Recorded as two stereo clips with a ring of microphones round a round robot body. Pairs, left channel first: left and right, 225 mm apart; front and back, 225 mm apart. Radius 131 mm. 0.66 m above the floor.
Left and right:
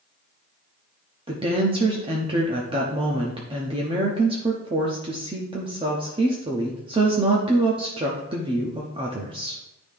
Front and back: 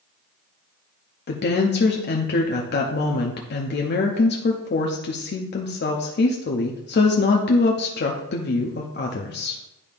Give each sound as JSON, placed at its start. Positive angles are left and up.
{"t": 1.3, "sound": "a woman speaking", "azimuth_deg": -25, "distance_m": 0.8}